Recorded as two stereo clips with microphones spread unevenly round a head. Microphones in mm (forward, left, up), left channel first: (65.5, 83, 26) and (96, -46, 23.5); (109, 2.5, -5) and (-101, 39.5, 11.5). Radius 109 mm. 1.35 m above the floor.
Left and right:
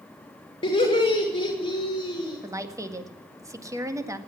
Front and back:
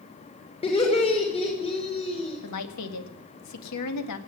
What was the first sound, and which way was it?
Laughter, 55° left.